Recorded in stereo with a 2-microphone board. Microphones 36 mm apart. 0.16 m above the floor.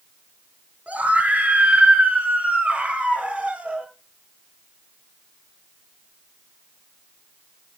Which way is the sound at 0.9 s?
40° right (ahead or behind).